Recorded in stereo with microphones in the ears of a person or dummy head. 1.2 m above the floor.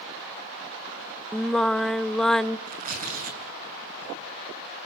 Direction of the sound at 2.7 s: 45° right (ahead or behind).